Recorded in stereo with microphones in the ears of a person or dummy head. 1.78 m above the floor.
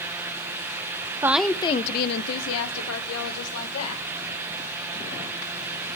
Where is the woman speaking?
20° right (ahead or behind), 0.8 m; by 4.0 s 85° left, 3 m.